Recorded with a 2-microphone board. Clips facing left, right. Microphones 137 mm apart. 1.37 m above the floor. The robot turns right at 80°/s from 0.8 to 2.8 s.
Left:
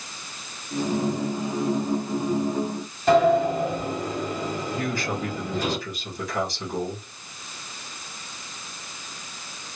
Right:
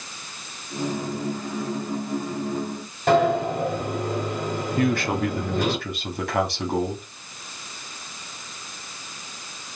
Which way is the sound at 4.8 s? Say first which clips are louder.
Right 9 dB; 65° right (ahead or behind).